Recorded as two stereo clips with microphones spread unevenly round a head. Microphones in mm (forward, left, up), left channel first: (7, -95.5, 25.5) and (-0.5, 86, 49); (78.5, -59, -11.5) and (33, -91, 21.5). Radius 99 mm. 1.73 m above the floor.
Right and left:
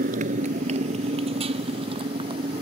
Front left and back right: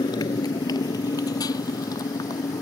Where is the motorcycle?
50° left; by 2.6 s 30° left.